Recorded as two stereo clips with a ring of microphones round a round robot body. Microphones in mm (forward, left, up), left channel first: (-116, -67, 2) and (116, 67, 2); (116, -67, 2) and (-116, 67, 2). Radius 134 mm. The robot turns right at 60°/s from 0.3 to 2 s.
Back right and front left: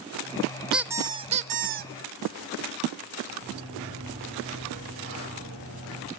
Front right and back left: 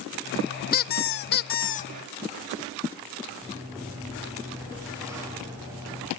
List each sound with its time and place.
0.7 s a squeak: 55° right, 0.6 m; by 1.9 s 15° left, 0.6 m
3.4 s a sliding door: 70° left, 9 m